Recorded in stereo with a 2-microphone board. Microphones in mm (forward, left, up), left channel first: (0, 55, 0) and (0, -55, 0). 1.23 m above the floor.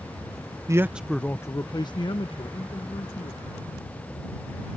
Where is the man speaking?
30° right (ahead or behind); by 3.4 s 65° left (ahead or behind).